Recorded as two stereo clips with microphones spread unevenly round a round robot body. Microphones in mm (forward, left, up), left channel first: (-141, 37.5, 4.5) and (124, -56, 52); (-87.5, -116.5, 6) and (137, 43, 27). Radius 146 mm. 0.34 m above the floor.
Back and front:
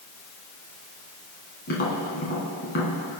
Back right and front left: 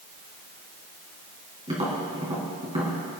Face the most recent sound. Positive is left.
turn(degrees=110)